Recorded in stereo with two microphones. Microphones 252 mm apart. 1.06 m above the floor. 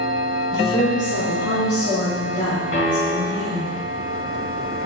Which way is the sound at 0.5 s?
70° left (ahead or behind).